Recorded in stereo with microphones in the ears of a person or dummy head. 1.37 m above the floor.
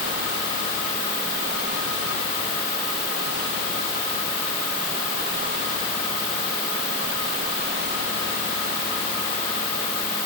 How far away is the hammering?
I don't hear hammering.